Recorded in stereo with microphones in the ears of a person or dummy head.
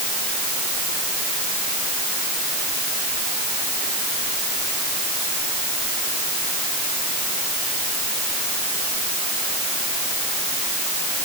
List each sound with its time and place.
Only background noise.